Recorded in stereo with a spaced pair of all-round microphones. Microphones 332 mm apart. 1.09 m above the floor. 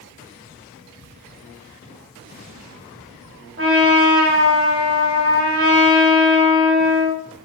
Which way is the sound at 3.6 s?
35° right (ahead or behind).